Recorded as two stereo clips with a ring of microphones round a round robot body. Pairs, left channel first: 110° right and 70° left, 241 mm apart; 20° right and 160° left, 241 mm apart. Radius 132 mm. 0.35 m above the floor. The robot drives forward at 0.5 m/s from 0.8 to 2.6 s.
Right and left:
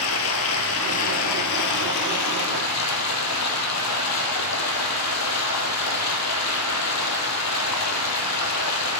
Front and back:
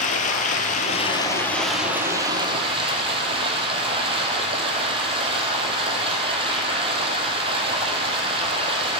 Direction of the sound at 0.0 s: 80° right.